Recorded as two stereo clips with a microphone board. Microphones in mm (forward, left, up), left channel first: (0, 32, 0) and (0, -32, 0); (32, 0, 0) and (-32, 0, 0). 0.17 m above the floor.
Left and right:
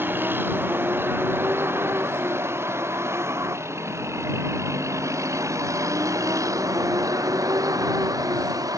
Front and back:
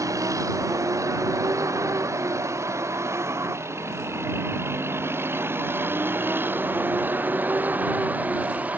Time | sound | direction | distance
0.0 | a vehicle | 145° right | ?